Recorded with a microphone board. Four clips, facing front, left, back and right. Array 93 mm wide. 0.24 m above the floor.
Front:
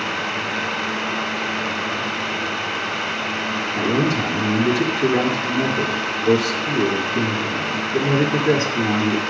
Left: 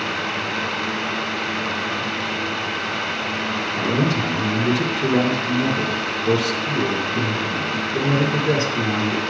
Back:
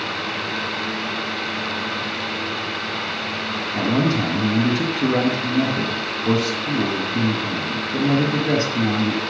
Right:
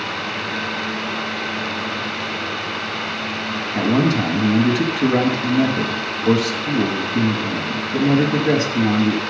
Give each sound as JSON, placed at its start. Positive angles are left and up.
{"t": 3.8, "sound": "a man speaking", "azimuth_deg": -110, "distance_m": 2.0}